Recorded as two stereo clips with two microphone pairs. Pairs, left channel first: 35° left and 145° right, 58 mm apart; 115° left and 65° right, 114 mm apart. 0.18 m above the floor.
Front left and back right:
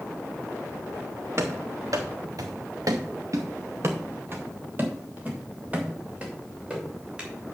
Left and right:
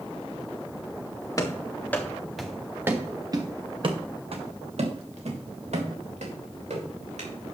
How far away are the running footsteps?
About 2 m.